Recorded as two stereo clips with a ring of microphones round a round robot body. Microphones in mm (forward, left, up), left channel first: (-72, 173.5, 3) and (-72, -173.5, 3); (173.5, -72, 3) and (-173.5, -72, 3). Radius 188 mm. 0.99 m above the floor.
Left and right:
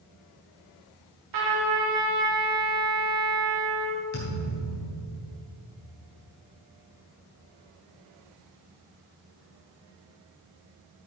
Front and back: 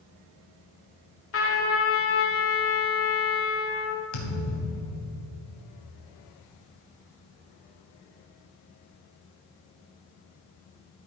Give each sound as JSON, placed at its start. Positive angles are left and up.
{"t": 1.3, "sound": "a trumpet", "azimuth_deg": -50, "distance_m": 2.5}
{"t": 4.1, "sound": "a thud", "azimuth_deg": 25, "distance_m": 3.5}